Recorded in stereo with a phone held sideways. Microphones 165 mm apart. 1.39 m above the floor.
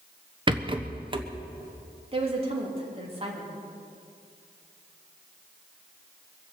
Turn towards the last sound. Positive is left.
turn(degrees=-35)  # may be behind; listen again after turning